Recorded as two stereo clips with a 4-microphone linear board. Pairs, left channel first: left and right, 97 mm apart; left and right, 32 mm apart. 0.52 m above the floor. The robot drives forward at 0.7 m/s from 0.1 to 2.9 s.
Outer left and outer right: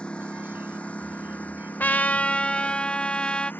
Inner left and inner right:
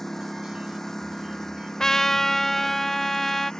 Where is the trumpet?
20° left (ahead or behind); by 3.5 s 10° left (ahead or behind).